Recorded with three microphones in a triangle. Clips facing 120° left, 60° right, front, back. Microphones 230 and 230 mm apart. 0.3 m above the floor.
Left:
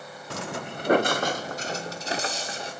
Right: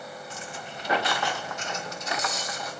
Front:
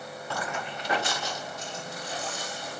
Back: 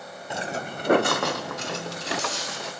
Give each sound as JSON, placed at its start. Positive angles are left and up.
{"t": 0.3, "sound": "footsteps", "azimuth_deg": 110, "distance_m": 0.7}